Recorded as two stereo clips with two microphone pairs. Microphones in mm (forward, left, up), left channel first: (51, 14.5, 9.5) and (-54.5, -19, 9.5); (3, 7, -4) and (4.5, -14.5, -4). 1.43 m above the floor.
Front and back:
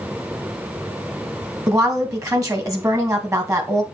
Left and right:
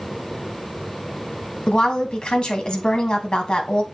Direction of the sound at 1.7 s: 140° left.